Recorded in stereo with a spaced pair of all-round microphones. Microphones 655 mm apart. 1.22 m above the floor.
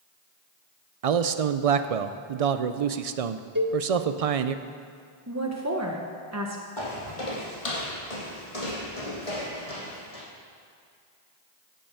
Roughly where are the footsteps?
Left.